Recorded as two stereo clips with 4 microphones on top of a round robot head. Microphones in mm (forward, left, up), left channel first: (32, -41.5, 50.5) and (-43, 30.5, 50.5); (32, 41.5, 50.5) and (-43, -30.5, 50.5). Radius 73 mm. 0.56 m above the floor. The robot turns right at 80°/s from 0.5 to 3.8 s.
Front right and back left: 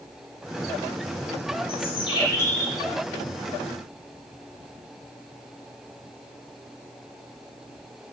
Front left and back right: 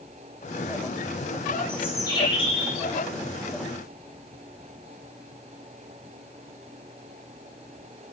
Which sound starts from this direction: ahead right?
A bird, at 1.7 s.